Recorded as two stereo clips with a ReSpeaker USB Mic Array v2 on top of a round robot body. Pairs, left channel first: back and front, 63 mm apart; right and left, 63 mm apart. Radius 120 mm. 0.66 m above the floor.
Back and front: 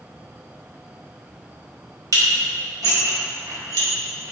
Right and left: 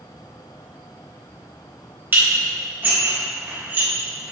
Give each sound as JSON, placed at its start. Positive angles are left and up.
{"t": 2.1, "sound": "dishes clattering", "azimuth_deg": 30, "distance_m": 2.5}